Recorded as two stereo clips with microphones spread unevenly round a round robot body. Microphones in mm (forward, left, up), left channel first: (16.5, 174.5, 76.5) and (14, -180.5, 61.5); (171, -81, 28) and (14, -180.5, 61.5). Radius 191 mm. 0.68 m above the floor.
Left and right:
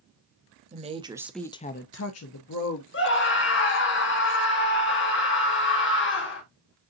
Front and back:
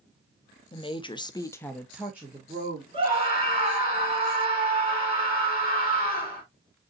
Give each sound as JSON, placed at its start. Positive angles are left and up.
{"t": 0.7, "sound": "a woman speaking", "azimuth_deg": -25, "distance_m": 1.0}
{"t": 2.9, "sound": "a scream", "azimuth_deg": 145, "distance_m": 1.3}